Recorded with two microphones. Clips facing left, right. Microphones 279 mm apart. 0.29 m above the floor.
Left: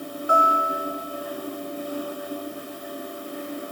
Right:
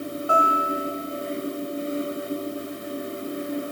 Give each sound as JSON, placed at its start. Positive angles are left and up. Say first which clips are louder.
{"t": 0.3, "sound": "a guitar", "louder": "even", "side_deg": 20, "distance_m": 3.5}